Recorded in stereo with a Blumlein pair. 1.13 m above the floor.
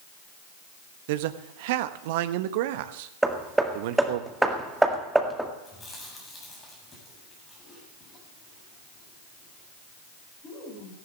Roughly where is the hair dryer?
No hair dryer in this recording.